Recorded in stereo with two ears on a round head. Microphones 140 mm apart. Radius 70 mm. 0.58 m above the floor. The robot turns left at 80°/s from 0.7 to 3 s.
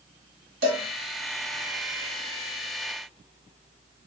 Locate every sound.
0.6 s a cowbell: 75° right (ahead or behind), 1.4 m; by 0.8 s 65° right (ahead or behind), 1.4 m